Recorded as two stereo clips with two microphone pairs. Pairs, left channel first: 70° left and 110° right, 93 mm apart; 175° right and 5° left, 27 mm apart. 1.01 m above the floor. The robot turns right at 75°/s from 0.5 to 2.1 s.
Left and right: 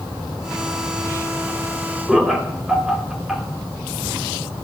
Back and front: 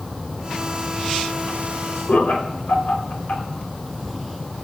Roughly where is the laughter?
Behind.